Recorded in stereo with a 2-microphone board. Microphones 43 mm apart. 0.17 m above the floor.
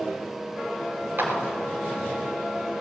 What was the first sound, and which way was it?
A clap, 55° right (ahead or behind).